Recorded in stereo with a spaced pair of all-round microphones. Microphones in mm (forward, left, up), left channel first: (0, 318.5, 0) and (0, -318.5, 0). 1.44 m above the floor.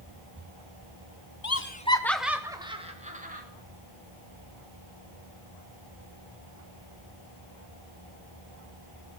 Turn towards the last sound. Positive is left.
turn(degrees=-15)  # may be behind; listen again after turning